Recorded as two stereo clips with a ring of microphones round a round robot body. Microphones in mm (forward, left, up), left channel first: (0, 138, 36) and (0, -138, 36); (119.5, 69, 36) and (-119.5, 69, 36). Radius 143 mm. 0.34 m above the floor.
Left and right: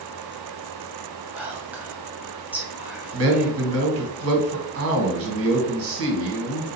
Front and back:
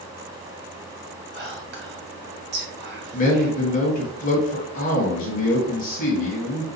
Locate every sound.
1.3 s whispering: 170° right, 1.3 m
3.1 s a man speaking: 60° right, 1.5 m